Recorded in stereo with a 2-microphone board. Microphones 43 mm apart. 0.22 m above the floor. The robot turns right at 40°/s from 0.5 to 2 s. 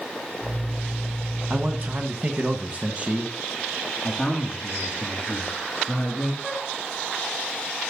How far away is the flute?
About 1.3 m.